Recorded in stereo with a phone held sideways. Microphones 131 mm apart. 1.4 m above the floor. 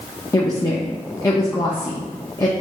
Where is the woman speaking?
25° left (ahead or behind), 0.7 m.